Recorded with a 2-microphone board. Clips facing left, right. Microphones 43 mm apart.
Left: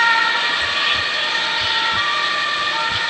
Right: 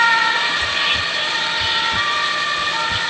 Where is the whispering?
Centre (ahead or behind), 1.7 m.